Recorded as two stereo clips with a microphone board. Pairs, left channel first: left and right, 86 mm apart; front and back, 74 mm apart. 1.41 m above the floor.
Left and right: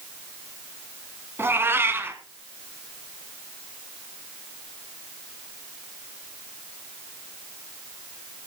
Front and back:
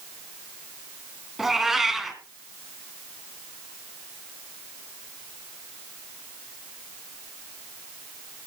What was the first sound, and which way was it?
A cat meowing, 95° right.